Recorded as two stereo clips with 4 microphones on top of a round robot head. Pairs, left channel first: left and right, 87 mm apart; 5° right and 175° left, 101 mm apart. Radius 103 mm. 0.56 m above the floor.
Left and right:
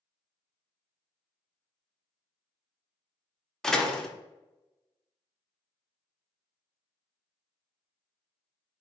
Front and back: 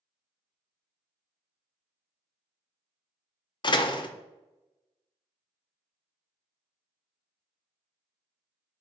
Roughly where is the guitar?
No guitar in this recording.